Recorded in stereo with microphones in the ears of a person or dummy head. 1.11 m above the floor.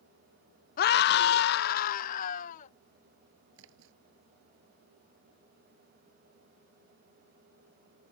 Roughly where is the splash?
Right.